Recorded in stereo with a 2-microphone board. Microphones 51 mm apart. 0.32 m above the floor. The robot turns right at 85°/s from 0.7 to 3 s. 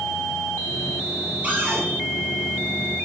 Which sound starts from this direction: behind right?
A cupboard door, at 1.4 s.